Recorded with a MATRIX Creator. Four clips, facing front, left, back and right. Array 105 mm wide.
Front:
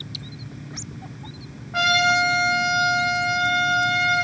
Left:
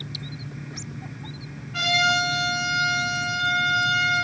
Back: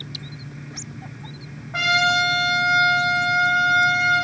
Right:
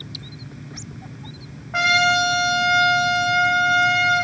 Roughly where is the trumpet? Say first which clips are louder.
Right 5 dB, front 1 dB; right.